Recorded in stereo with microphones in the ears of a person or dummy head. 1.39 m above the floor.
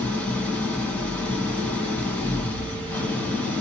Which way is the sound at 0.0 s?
5° left (ahead or behind).